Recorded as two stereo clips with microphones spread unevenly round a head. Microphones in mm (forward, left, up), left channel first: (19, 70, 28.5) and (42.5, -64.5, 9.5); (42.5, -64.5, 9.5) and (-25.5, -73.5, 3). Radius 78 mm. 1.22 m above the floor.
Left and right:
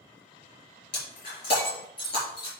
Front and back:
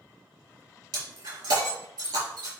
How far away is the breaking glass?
About 4.5 m.